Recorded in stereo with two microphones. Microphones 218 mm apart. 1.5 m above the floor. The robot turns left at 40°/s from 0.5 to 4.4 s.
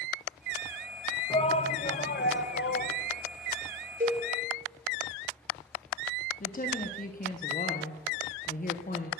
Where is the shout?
155° left, 0.9 m; by 3.0 s 90° left, 0.9 m.